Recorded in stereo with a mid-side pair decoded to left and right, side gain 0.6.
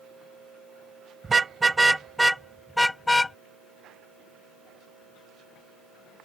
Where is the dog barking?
No dog barking in this recording.